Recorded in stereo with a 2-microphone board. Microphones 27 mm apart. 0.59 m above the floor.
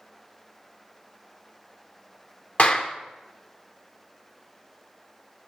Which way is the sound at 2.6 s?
50° left (ahead or behind).